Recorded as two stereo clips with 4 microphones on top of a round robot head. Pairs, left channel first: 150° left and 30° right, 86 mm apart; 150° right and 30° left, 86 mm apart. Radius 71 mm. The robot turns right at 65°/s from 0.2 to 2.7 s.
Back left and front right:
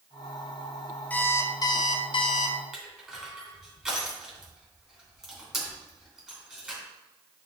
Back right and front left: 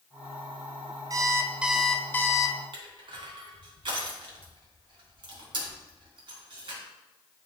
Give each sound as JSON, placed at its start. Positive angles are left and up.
{"t": 1.1, "sound": "an alarm clock", "azimuth_deg": 75, "distance_m": 0.8}
{"t": 2.7, "sound": "crushing", "azimuth_deg": 55, "distance_m": 3.0}